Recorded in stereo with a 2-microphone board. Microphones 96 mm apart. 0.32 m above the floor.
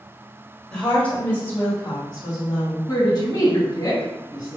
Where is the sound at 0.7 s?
10° left (ahead or behind), 1.5 m; by 2.8 s 45° left (ahead or behind), 2.5 m.